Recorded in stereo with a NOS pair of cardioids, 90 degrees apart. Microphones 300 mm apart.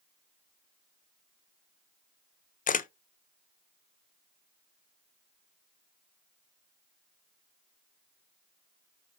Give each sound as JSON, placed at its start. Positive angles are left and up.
{"t": 2.7, "sound": "a camera shutter", "azimuth_deg": 30, "distance_m": 0.5}